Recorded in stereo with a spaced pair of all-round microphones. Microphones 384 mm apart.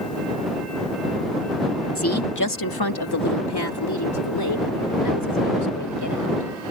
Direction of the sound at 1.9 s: 35° left (ahead or behind).